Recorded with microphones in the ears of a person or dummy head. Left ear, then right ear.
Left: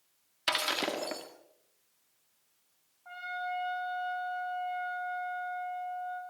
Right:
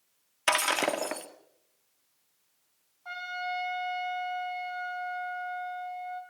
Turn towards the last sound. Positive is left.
turn(degrees=-70)  # may be behind; listen again after turning